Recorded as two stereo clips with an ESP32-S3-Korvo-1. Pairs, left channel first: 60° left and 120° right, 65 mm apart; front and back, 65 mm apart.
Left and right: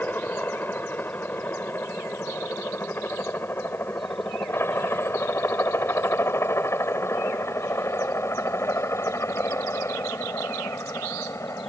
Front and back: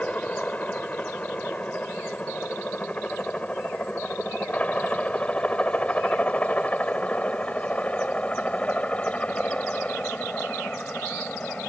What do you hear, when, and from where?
0.0 s a helicopter: 45° left; by 11.7 s 65° left